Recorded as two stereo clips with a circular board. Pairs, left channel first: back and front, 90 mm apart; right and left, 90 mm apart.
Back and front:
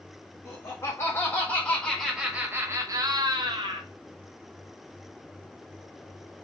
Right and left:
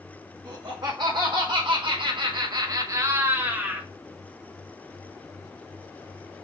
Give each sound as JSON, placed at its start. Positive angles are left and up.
{"t": 0.5, "sound": "laughter", "azimuth_deg": 130, "distance_m": 1.5}